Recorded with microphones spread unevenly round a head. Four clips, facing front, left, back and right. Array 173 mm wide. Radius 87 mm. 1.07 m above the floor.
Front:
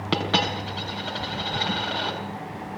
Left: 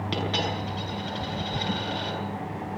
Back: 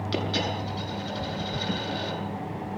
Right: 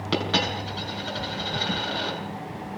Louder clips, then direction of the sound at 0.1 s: Right 4 dB, front 5 dB; 15° right.